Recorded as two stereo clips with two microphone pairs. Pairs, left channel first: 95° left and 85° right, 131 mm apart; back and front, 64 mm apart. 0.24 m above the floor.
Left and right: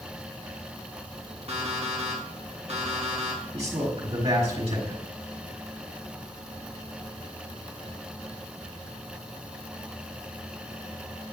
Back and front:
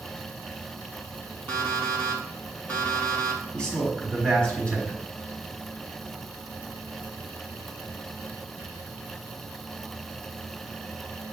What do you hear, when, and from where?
1.5 s an alarm clock: 120° right, 2.5 m
3.5 s a man speaking: 110° right, 3 m